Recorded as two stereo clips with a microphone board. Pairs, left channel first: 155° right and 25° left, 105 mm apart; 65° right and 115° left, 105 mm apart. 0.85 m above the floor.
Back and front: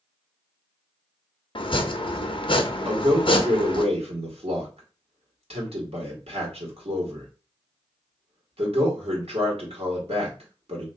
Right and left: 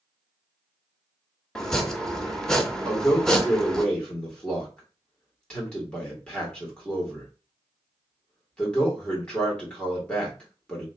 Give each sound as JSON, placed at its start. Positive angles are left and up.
{"t": 1.6, "sound": "chopping", "azimuth_deg": -150, "distance_m": 0.6}
{"t": 2.9, "sound": "a man speaking", "azimuth_deg": 15, "distance_m": 1.9}